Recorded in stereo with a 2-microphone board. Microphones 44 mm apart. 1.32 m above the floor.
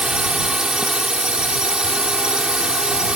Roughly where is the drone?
Centre.